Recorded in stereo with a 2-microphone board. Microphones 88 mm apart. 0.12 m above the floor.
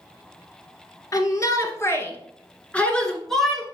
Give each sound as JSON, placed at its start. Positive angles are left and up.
{"t": 1.1, "sound": "a shout", "side_deg": 40, "distance_m": 1.7}